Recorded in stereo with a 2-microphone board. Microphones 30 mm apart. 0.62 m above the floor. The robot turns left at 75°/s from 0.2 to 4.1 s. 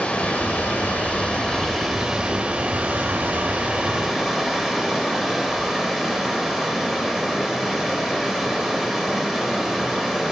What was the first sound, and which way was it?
Running water, 125° left.